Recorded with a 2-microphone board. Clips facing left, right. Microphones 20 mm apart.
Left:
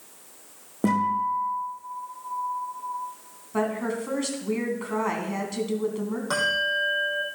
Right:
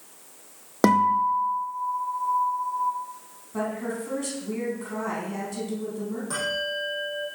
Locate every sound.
0.8 s a guitar: 80° right, 2.5 m
3.5 s a woman speaking: 35° left (ahead or behind), 3 m
6.3 s a bell: 40° left (ahead or behind), 5 m